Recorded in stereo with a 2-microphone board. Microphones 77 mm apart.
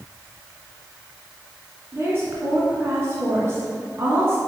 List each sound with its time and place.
1.9 s a woman speaking: 35° right (ahead or behind), 1.6 m